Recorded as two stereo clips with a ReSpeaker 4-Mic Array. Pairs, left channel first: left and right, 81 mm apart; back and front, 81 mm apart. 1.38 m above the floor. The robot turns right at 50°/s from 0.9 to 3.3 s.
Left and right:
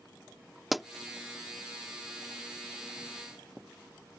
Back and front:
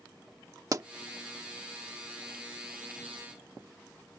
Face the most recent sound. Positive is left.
turn(degrees=115)